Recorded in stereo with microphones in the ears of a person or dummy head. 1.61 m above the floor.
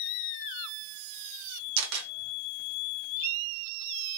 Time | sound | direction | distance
1.8 | a camera shutter | 65° right (ahead or behind) | 1.2 m